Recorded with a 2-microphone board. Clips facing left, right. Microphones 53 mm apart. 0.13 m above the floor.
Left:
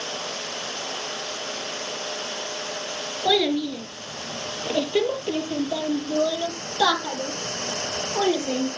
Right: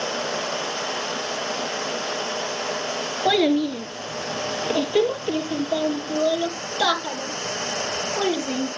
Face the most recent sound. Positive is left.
turn(degrees=20)  # may be behind; listen again after turning